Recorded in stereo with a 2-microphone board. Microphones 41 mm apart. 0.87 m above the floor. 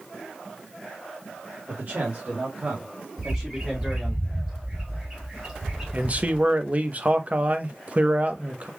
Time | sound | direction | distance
1.7 | a man speaking | 50° right (ahead or behind) | 1.8 m
3.2 | a bird | 15° right (ahead or behind) | 2.5 m
5.9 | a man speaking | 35° right (ahead or behind) | 0.8 m